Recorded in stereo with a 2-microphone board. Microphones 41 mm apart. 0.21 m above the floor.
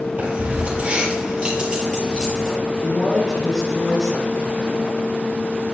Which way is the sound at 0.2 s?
30° right (ahead or behind).